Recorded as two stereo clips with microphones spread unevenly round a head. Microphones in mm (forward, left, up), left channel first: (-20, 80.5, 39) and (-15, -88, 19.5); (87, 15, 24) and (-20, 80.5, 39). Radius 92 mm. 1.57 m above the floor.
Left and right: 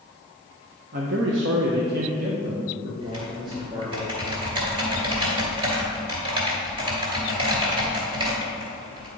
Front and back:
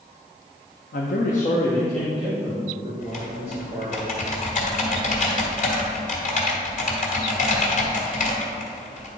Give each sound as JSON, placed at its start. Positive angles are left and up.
{"t": 0.9, "sound": "a man speaking", "azimuth_deg": -45, "distance_m": 0.9}
{"t": 3.0, "sound": "typing on a keyboard", "azimuth_deg": -25, "distance_m": 2.0}